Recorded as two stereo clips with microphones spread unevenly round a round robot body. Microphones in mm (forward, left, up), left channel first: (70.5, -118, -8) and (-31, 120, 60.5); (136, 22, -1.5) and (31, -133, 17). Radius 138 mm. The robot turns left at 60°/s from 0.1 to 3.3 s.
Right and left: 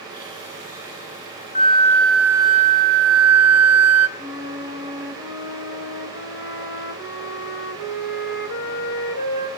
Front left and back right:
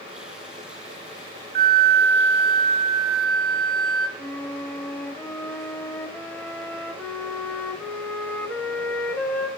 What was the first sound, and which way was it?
A flute, 110° right.